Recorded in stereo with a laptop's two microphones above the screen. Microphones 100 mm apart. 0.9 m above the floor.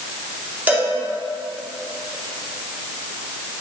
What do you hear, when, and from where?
0.7 s a cowbell: 15° right (ahead or behind), 2.5 m